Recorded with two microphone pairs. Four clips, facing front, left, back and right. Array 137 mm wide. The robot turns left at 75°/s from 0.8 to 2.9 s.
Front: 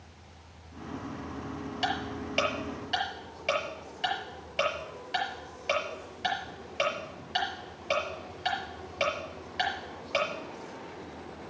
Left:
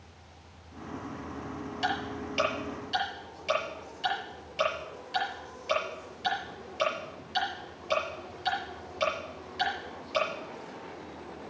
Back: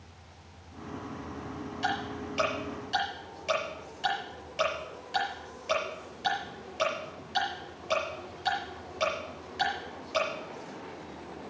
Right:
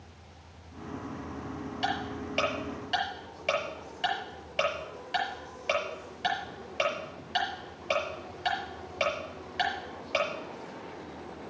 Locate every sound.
1.8 s ticking: 15° left, 6 m; by 10.3 s 65° right, 6 m